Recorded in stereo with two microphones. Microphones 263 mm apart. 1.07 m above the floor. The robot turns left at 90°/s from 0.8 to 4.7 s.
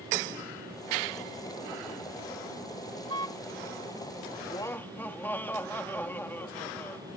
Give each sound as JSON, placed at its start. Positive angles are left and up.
{"t": 3.1, "sound": "a car horn", "side_deg": -65}
{"t": 4.5, "sound": "laughter", "side_deg": 30}